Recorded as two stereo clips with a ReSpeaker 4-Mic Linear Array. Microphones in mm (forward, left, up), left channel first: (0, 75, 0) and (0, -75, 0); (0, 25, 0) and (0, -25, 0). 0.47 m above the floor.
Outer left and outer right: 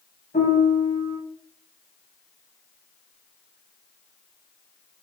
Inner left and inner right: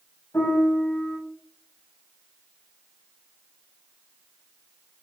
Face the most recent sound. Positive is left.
turn(degrees=65)  # may be behind; listen again after turning